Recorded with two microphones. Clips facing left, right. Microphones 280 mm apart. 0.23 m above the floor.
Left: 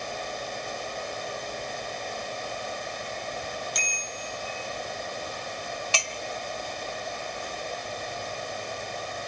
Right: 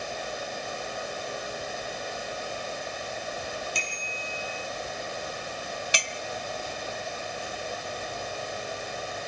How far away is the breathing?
No breathing in this recording.